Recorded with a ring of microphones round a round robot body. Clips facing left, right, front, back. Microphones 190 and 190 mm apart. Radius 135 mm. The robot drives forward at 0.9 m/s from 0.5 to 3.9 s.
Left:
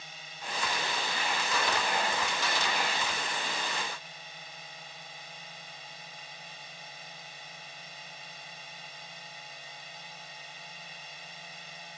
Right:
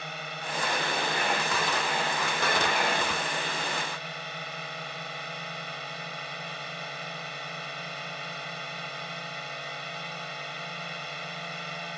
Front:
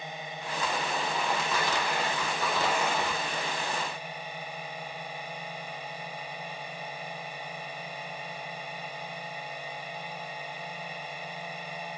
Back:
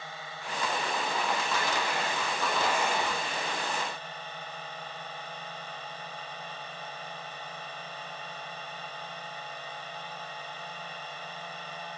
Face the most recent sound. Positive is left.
turn(degrees=-80)